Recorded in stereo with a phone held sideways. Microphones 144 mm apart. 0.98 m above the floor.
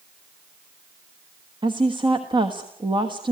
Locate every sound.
1.6 s a woman speaking: 30° right (ahead or behind), 1.4 m